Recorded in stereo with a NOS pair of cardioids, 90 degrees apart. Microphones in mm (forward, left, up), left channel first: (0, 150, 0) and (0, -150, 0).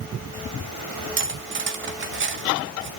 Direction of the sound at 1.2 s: 40° right.